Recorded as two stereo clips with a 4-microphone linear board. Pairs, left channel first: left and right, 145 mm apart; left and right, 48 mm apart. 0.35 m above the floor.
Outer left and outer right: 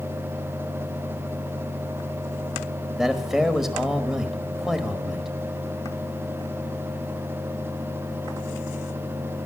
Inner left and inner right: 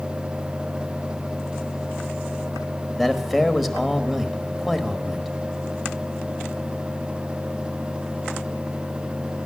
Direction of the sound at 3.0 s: Centre (ahead or behind).